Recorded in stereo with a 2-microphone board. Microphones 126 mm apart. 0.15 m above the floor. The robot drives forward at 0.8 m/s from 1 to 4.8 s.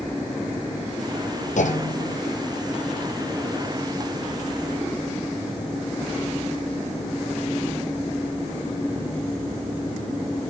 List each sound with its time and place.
1.6 s a clunk: 80° left, 1.0 m; by 2.2 s 70° left (ahead or behind), 1.1 m